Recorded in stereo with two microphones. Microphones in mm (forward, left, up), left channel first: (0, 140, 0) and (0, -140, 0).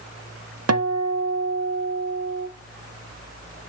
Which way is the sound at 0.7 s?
60° right (ahead or behind).